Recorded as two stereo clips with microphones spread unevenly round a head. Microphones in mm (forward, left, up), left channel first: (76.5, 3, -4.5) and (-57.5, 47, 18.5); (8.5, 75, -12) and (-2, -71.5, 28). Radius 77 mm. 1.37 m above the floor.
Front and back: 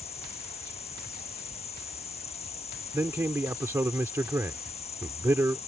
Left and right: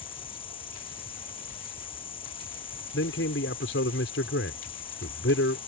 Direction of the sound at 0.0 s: 30° left.